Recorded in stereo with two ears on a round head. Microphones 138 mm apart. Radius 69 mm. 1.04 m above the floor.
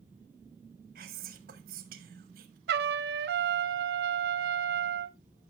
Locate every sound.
0.9 s whispering: 65° right (ahead or behind), 1.6 m
2.7 s a trumpet: 75° right (ahead or behind), 0.8 m